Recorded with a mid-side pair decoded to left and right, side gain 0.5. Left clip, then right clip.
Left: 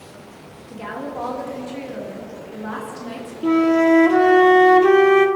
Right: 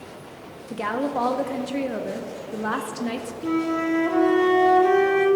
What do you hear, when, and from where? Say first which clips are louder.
0.7 s a woman speaking: right 5 dB; 50° right, 1.4 m
3.4 s a flute: left 9 dB; 50° left, 0.8 m